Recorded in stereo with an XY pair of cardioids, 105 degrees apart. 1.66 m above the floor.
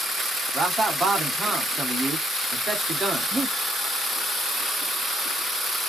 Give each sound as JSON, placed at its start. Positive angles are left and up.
{"t": 0.5, "sound": "a man speaking", "azimuth_deg": -40, "distance_m": 1.3}
{"t": 3.3, "sound": "breathing", "azimuth_deg": -15, "distance_m": 0.6}